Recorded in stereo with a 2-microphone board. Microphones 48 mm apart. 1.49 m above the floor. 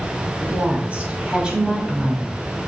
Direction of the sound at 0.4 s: 35° right (ahead or behind).